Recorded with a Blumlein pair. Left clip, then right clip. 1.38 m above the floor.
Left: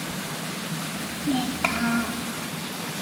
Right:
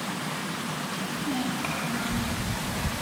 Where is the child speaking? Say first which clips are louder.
Left 5 dB; 10° left, 2.5 m; by 2.2 s 45° left, 2 m.